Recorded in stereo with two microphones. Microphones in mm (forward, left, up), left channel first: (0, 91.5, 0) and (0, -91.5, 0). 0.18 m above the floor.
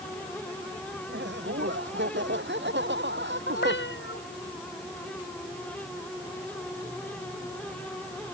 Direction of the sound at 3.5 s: 80° left.